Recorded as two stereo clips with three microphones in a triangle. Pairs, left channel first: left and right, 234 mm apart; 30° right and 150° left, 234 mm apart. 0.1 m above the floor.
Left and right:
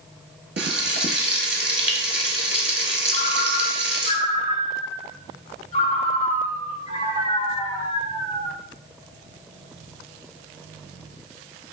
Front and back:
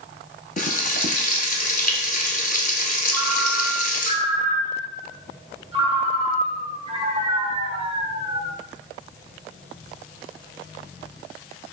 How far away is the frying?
About 0.7 m.